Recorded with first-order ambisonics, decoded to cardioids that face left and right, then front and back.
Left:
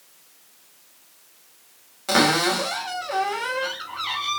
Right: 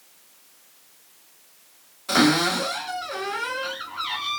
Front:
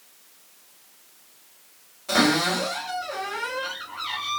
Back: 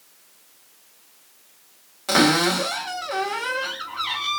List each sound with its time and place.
2.1 s a cupboard door: 135° left, 1.4 m